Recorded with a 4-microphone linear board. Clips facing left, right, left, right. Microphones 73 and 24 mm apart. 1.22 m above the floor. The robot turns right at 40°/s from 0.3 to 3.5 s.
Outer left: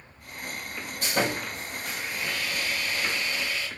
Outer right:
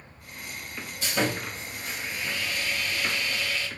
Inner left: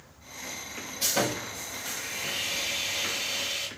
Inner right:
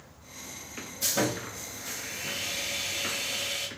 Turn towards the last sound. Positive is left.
turn(degrees=160)